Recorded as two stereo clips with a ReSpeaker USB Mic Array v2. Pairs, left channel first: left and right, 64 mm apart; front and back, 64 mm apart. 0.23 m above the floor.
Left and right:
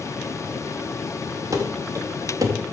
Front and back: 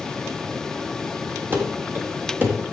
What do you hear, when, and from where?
1.5 s running footsteps: 120° right, 5 m